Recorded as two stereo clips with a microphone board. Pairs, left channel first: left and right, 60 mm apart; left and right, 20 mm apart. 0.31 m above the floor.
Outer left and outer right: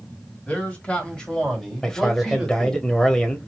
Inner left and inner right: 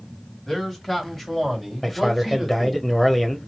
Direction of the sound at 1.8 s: 10° left (ahead or behind).